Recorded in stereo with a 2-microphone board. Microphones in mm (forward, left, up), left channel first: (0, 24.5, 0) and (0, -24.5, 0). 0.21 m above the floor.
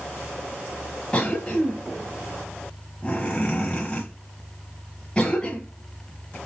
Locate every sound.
1.1 s a cough: 20° left (ahead or behind), 1.3 m